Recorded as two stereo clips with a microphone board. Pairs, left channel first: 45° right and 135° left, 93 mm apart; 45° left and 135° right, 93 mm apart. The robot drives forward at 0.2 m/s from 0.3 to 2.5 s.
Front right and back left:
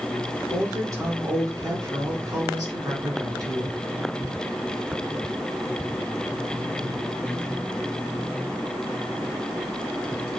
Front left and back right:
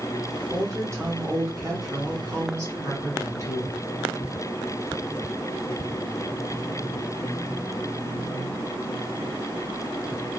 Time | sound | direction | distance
0.5 | a woman speaking | 175° left | 1.6 m